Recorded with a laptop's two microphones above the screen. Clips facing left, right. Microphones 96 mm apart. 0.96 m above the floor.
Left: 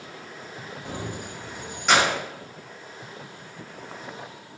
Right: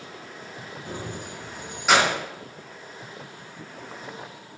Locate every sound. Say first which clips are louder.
0.8 s keys jangling: left 1 dB; 75° left (ahead or behind), 0.6 m; by 2.2 s 15° right (ahead or behind), 0.9 m